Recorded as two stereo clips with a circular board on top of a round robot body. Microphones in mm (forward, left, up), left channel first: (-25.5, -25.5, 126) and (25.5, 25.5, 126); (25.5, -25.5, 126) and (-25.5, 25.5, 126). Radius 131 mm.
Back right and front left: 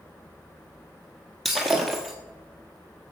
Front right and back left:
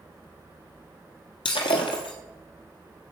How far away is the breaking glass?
About 1.4 m.